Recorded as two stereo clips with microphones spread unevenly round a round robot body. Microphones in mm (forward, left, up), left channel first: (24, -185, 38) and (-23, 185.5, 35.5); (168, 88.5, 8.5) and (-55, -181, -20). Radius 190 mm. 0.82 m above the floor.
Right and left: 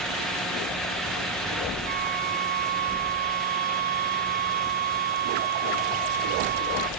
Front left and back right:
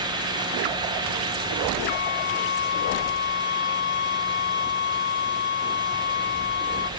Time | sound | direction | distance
1.9 | a flute | 30° left | ?